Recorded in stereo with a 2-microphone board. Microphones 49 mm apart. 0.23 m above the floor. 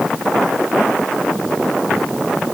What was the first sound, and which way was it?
Only background noise.